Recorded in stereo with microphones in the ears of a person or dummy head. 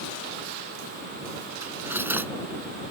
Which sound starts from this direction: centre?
Cutlery clinking, at 1.6 s.